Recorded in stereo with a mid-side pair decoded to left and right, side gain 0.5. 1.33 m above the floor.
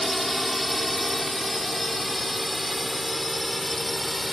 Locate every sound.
0.0 s a drone: straight ahead; by 4.3 s 10° left